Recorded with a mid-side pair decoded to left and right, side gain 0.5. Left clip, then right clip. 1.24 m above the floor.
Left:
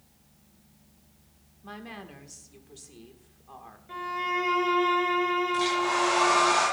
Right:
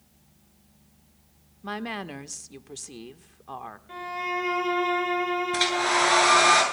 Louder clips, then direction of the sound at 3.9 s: Left 1 dB; 10° right.